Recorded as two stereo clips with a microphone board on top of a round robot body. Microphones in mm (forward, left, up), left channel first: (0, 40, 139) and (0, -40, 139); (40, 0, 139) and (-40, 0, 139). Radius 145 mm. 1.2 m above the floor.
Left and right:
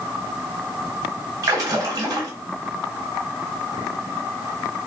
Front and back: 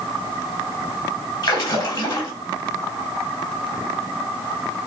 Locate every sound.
1.4 s a splash: 40° right, 1.5 m